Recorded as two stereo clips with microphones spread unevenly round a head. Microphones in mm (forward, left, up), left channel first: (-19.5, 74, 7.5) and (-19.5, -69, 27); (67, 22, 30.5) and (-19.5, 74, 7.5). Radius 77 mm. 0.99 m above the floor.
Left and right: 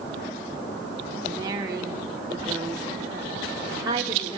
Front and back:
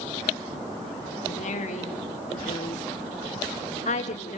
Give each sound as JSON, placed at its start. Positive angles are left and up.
{"t": 1.2, "sound": "a woman speaking", "azimuth_deg": -20, "distance_m": 3.5}